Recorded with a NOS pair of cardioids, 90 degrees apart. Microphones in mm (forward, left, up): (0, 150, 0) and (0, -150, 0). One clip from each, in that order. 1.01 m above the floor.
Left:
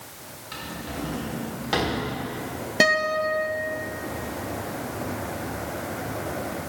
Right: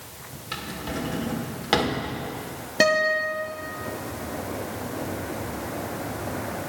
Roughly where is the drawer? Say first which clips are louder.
Right 3 dB; ahead right.